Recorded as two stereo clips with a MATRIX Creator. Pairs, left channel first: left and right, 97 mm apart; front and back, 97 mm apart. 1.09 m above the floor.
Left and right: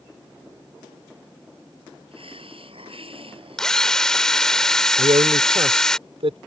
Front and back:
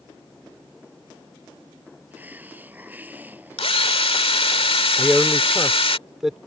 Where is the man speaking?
95° right.